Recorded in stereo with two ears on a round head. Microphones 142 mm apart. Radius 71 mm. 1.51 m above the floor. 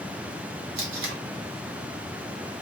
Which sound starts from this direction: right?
Tape being pulled, at 0.8 s.